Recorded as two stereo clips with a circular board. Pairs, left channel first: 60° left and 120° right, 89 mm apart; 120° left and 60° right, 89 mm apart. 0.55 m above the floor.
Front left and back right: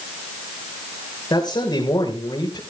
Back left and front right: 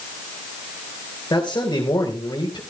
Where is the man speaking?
90° left, 2.5 m.